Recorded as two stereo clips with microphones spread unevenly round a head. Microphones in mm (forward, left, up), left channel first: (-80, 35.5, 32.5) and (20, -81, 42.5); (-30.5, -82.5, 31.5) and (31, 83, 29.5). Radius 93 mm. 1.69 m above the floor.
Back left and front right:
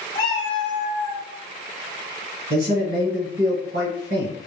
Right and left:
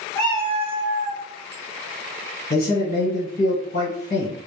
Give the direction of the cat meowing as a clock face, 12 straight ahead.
6 o'clock.